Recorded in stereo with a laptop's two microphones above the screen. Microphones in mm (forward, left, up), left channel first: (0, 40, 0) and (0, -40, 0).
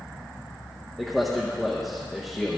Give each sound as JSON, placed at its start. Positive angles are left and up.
{"t": 1.0, "sound": "a man speaking", "side_deg": 0, "distance_m": 0.8}